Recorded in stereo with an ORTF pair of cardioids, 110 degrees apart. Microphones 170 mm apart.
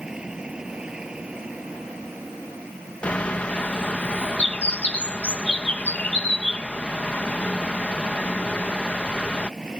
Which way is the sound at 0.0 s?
5° right.